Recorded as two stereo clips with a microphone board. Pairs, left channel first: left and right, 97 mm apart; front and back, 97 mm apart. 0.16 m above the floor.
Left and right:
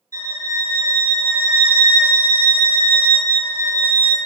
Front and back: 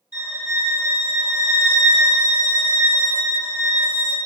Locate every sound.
0.1 s a violin: 130° left, 2.0 m